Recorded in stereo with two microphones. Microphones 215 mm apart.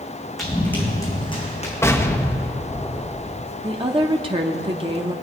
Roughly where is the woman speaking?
Right.